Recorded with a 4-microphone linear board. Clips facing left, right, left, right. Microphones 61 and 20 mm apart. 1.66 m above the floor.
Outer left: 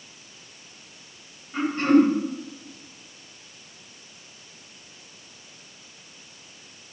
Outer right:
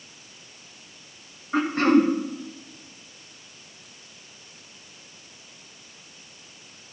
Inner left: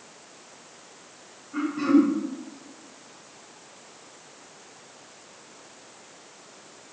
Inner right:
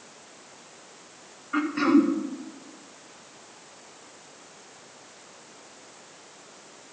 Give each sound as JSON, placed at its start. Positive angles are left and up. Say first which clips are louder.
{"t": 1.5, "sound": "throat clearing", "louder": "even, even", "side_deg": -85, "distance_m": 2.5}